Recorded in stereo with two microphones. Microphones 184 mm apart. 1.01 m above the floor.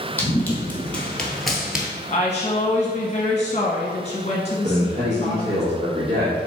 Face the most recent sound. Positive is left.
turn(degrees=-60)  # may be behind; listen again after turning